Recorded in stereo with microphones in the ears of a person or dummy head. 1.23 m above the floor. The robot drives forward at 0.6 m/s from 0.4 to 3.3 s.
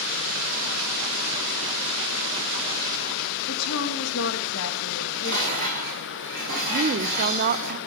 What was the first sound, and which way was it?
A woman speaking, 75° left (ahead or behind).